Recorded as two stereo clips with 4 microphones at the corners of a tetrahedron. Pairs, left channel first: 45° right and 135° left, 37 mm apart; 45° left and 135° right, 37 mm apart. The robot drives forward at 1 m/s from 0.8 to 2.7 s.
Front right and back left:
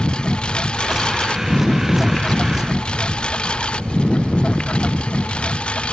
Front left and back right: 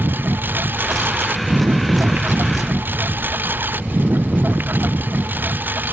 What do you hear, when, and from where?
0.0 s a lawn mower: 110° right; by 5.9 s 105° right